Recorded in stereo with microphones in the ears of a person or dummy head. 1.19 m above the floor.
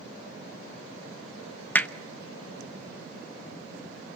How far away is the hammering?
About 0.7 m.